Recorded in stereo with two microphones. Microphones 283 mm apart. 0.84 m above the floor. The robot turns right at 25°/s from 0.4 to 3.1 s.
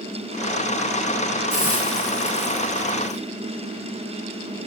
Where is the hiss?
115° left, 2.5 m; by 3.2 s 155° left, 2.5 m.